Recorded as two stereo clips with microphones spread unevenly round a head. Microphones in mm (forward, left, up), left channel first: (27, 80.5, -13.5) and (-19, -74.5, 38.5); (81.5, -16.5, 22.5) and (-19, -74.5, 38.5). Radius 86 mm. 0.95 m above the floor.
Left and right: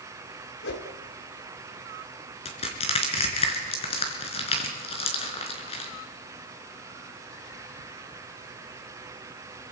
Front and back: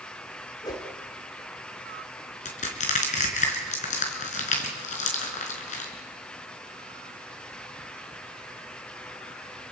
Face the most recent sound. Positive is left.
turn(degrees=15)